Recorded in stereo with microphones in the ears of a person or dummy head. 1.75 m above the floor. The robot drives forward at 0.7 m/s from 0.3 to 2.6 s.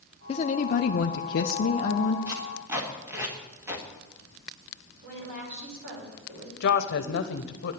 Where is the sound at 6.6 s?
60° left (ahead or behind), 1.0 m.